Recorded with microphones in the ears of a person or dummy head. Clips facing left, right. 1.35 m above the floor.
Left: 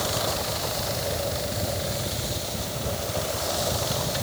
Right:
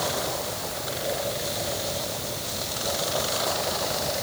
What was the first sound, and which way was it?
Only background noise.